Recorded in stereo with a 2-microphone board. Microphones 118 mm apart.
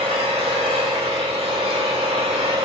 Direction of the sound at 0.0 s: 50° right (ahead or behind).